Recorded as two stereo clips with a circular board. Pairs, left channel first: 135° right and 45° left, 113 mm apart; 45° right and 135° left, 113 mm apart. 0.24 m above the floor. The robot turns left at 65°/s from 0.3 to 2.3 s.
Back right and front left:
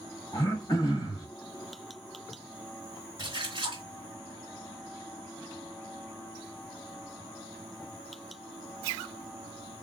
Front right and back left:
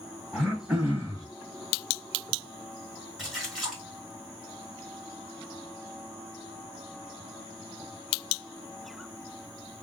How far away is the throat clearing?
About 1.9 m.